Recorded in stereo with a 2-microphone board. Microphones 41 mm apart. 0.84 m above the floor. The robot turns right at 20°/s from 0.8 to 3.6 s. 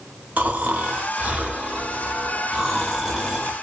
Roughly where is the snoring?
Ahead right.